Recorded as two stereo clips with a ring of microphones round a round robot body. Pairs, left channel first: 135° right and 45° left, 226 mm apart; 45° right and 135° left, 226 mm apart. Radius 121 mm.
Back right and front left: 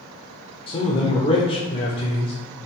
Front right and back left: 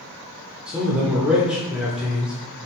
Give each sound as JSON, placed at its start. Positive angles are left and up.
{"t": 0.7, "sound": "a man speaking", "azimuth_deg": -145, "distance_m": 0.8}